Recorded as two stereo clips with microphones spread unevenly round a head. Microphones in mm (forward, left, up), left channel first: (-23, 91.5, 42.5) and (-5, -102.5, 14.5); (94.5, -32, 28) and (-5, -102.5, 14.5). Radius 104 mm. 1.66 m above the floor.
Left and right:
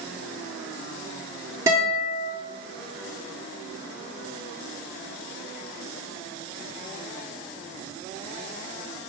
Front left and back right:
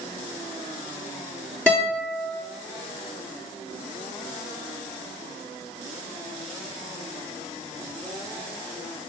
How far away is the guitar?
About 1.3 m.